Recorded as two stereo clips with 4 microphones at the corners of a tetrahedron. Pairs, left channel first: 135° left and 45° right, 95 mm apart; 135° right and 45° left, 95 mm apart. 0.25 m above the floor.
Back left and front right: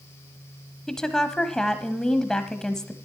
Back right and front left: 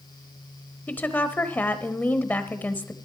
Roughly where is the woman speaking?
Behind right.